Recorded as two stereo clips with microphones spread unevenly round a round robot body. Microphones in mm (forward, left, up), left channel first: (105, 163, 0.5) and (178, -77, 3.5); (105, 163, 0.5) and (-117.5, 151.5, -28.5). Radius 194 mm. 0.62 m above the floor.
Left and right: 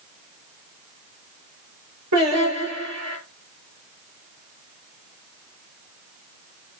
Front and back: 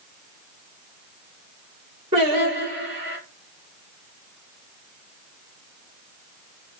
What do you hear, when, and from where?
2.1 s singing: 120° right, 6 m